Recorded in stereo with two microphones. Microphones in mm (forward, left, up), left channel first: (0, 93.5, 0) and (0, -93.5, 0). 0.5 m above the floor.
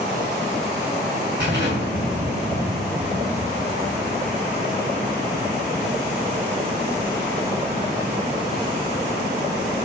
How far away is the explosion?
About 6 m.